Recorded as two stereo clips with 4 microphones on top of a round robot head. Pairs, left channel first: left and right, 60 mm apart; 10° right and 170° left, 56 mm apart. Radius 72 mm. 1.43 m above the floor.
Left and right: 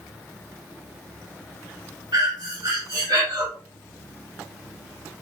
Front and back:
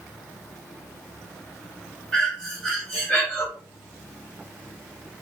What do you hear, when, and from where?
2.1 s breathing: 90° right, 1.4 m